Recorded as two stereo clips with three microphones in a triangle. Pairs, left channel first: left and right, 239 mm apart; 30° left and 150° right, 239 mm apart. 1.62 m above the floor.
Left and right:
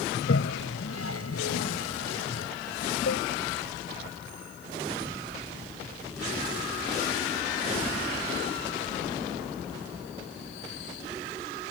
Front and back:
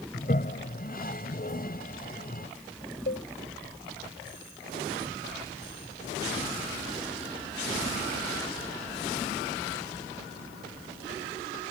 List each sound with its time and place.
0.1 s a toilet flushing: 80° left
3.1 s a cowbell: 70° left